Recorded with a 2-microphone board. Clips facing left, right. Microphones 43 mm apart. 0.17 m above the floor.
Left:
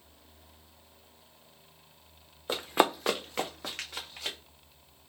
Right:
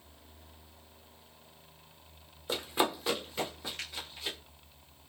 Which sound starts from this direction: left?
Running footsteps, at 2.5 s.